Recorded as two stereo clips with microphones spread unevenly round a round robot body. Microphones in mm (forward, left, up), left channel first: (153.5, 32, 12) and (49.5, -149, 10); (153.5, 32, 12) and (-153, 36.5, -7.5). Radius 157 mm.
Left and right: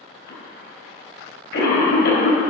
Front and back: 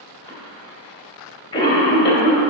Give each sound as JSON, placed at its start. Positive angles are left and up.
{"t": 0.3, "sound": "a cough", "azimuth_deg": 70, "distance_m": 3.0}